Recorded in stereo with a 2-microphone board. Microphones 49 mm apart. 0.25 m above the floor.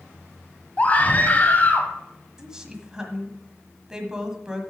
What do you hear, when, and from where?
0.8 s a scream: 30° left (ahead or behind), 1.4 m
2.4 s a woman speaking: 15° right (ahead or behind), 1.5 m